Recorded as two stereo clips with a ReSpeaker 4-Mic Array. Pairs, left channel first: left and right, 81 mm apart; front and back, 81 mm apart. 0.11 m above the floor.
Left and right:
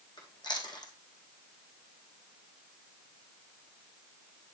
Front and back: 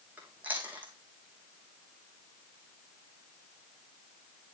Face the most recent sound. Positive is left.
turn(degrees=110)